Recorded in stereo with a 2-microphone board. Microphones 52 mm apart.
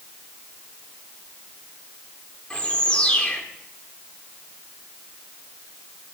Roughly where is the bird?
Centre.